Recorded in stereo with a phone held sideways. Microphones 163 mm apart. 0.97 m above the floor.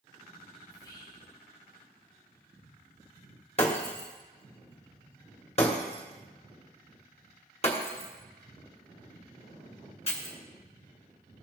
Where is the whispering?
20° left (ahead or behind), 1.0 m.